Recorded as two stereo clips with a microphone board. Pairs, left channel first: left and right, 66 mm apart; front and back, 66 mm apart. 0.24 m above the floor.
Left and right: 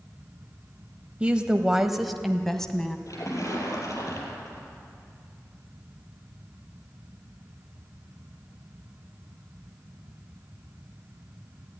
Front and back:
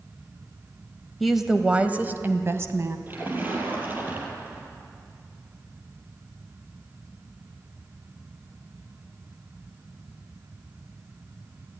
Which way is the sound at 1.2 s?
85° right.